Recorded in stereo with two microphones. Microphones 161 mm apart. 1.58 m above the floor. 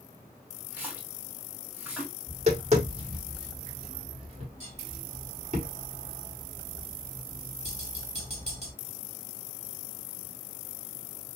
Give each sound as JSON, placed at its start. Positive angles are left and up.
{"t": 0.7, "sound": "a splash", "side_deg": -10, "distance_m": 1.2}
{"t": 2.3, "sound": "tapping", "side_deg": -45, "distance_m": 1.7}